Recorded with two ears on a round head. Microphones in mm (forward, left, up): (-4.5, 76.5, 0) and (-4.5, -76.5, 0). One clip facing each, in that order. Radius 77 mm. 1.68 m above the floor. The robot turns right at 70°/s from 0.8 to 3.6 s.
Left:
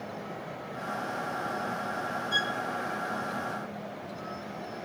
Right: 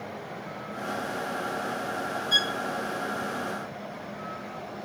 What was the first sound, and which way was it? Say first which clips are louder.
A violin: right 1 dB; 65° right (ahead or behind).